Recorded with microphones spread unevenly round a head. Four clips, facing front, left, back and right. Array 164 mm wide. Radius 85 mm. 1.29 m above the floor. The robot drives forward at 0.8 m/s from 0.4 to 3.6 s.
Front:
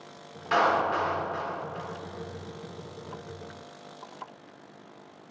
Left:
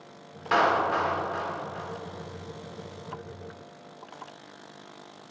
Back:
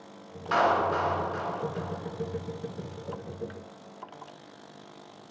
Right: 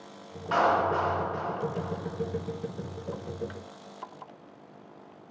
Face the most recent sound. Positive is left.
turn(degrees=105)